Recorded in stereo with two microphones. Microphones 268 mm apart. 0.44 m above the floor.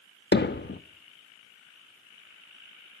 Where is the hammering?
45° left (ahead or behind), 0.5 m.